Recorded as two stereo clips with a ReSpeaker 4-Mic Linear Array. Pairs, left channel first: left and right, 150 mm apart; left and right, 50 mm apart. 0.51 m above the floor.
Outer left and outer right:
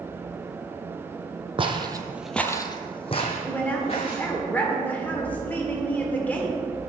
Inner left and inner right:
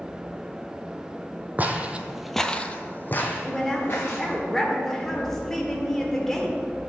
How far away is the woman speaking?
About 1.5 m.